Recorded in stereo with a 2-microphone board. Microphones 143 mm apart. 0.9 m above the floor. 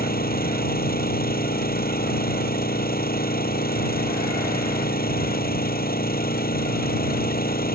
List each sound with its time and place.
0.0 s an engine running: 75° left (ahead or behind)